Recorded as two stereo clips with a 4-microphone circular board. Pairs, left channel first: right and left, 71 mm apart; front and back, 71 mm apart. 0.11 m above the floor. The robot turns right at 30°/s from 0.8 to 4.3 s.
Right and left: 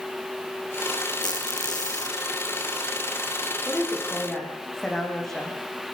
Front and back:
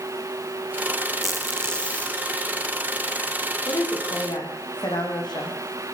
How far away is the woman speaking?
About 7.5 m.